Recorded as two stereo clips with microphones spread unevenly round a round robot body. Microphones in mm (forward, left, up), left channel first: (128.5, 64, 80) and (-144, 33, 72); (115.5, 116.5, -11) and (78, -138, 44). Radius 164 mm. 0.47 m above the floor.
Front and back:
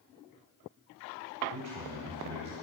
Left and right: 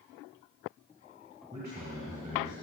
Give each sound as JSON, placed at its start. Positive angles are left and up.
{"t": 1.5, "sound": "a man speaking", "azimuth_deg": -175, "distance_m": 2.5}